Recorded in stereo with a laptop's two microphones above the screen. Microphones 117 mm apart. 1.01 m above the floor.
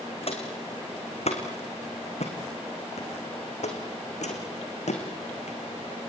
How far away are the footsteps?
About 4.5 m.